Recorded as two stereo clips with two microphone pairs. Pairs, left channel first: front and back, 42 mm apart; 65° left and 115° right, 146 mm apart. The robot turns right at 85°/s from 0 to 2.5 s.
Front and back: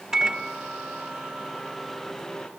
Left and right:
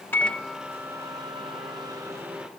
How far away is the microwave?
About 0.8 m.